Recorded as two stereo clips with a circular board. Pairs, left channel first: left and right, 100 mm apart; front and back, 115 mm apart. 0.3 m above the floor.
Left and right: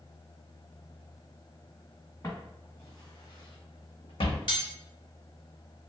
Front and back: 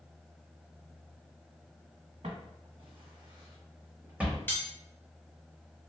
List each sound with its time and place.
2.2 s footsteps: 150° left, 1.6 m; by 4.4 s 95° left, 1.1 m
4.5 s cutlery clinking: 70° left, 0.9 m